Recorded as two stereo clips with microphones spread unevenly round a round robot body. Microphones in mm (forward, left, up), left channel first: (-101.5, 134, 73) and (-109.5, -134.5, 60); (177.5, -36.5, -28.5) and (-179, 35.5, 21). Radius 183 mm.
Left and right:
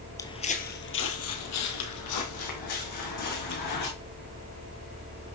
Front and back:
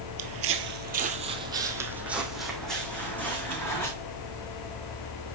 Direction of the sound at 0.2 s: 160° left.